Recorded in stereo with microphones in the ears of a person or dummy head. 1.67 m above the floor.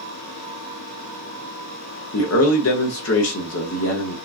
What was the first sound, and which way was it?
A man speaking, 80° left.